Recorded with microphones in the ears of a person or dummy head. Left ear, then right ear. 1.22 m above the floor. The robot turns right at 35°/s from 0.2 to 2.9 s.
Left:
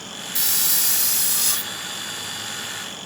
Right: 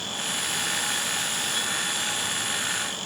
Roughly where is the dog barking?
No dog barking in this recording.